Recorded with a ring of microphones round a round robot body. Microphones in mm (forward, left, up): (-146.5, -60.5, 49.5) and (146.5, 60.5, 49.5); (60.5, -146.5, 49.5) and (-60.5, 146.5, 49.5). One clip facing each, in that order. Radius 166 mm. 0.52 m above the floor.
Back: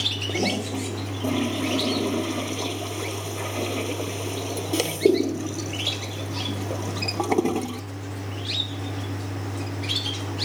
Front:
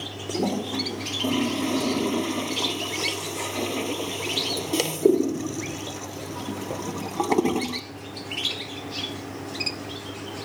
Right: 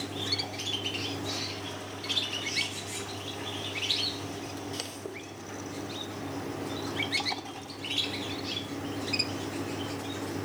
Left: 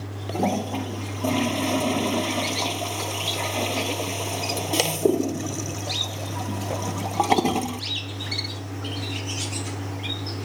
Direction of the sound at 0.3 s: 110° left.